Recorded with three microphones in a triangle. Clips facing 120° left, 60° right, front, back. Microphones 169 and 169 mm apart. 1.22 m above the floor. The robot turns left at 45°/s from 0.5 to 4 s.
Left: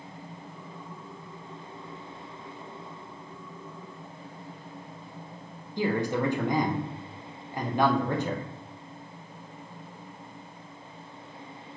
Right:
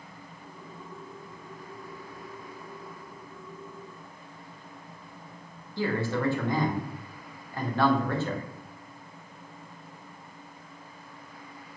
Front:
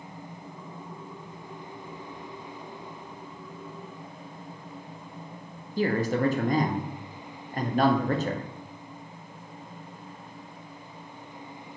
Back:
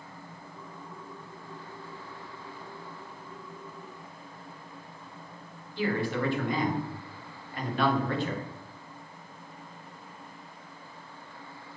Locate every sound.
5.8 s a man speaking: 50° left, 0.6 m